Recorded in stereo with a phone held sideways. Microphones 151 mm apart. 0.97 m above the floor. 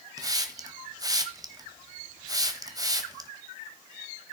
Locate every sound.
0.2 s a hiss: 25° right (ahead or behind), 1.2 m